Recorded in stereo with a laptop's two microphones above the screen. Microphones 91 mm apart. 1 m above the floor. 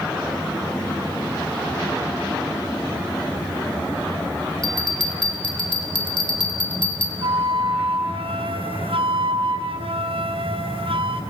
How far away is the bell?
About 1.9 m.